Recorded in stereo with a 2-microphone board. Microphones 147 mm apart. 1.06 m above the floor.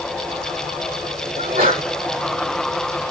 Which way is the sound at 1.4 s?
80° right.